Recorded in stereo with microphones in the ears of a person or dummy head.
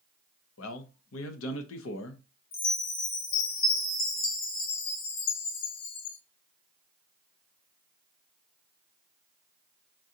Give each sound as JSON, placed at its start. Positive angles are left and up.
{"t": 0.6, "sound": "a man speaking", "side_deg": 85, "distance_m": 0.8}
{"t": 2.5, "sound": "a chime", "side_deg": 45, "distance_m": 0.7}